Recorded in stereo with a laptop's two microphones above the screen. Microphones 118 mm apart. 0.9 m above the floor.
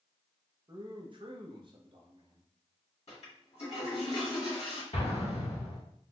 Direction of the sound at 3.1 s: 70° left (ahead or behind).